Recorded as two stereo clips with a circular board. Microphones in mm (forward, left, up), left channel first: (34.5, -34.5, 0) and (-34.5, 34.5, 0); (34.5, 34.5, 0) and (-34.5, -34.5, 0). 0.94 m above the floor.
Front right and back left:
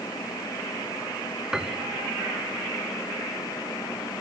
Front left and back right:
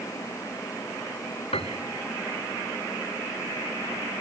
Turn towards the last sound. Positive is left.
turn(degrees=50)